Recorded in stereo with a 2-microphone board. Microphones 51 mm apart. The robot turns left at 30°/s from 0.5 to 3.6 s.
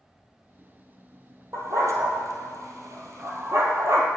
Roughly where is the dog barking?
Right.